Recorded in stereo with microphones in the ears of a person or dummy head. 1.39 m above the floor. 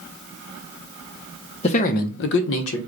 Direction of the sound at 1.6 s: 35° left (ahead or behind).